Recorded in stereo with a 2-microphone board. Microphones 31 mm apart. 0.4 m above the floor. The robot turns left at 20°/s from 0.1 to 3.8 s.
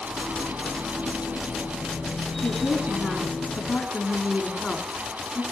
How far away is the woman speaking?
About 4.5 m.